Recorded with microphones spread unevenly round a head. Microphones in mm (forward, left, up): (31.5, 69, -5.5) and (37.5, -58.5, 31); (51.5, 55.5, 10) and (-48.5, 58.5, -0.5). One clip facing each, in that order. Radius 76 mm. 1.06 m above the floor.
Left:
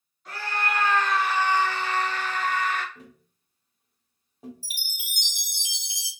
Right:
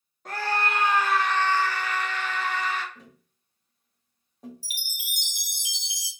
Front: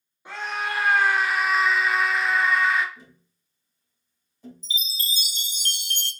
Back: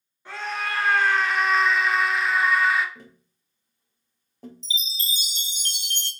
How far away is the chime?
About 0.6 m.